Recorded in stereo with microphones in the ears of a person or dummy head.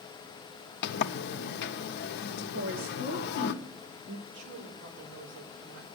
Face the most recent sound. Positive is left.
turn(degrees=-65)  # may be behind; listen again after turning